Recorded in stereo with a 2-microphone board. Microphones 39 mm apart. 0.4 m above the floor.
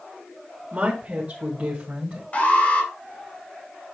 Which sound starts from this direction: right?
A woman speaking, at 0.7 s.